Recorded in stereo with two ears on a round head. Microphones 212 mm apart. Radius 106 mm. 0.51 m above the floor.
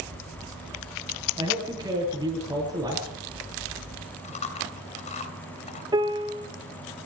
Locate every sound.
1.4 s a man speaking: 15° right (ahead or behind), 9.5 m
4.2 s chewing: 30° left (ahead or behind), 3 m
5.9 s a piano: 20° right (ahead or behind), 1.8 m